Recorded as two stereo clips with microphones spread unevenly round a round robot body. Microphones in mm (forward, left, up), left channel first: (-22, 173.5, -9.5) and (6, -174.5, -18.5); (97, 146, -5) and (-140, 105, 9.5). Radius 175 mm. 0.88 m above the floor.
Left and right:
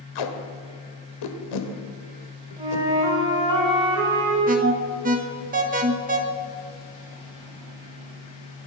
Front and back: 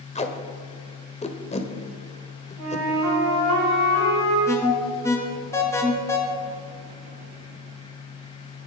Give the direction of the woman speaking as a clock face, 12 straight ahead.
I don't hear a woman speaking.